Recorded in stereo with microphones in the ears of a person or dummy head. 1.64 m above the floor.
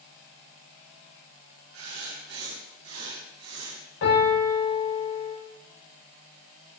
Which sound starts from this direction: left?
A piano, at 4.0 s.